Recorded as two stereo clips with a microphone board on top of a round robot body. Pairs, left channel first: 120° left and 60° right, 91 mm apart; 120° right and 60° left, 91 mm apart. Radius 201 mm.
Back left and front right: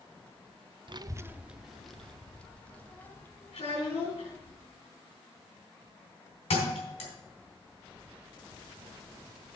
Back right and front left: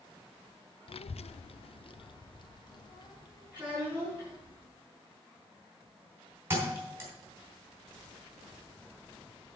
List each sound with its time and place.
0.9 s a child speaking: 95° right, 0.5 m; by 4.5 s 170° right, 3 m
3.5 s a child speaking: 140° left, 6 m
6.5 s a thud: 125° left, 3 m